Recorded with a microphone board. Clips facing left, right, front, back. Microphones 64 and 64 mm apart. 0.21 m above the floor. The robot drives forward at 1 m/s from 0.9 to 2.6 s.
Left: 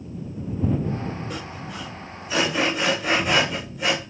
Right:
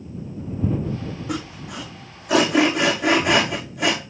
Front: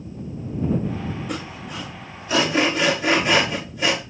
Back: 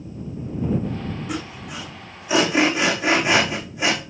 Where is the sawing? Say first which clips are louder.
Right 4 dB, back 1 dB; 95° right, 4.5 m; by 4.0 s 110° right, 5 m.